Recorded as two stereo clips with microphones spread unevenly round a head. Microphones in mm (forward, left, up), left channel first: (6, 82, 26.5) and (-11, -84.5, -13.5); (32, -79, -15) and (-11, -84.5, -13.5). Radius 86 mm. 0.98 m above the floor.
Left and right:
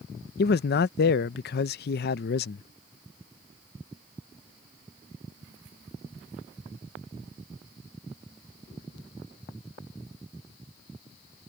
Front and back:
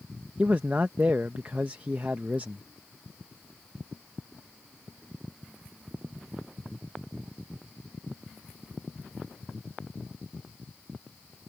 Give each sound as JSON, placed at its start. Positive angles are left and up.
{"t": 0.4, "sound": "a man speaking", "azimuth_deg": 115}